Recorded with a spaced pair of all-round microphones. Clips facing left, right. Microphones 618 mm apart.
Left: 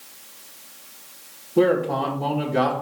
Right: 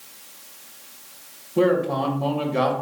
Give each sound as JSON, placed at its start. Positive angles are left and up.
{"t": 1.6, "sound": "a man speaking", "side_deg": 0, "distance_m": 1.8}